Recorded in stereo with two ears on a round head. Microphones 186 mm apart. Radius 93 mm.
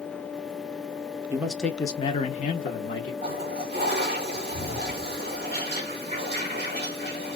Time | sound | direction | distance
1.3 | a man speaking | 10° right (ahead or behind) | 0.6 m
3.2 | a toilet flushing | 30° right (ahead or behind) | 1.5 m